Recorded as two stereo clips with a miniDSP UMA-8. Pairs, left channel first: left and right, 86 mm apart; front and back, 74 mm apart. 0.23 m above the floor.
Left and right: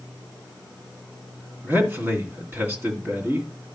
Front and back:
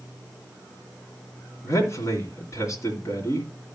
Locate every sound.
1.6 s a man speaking: 30° right, 3 m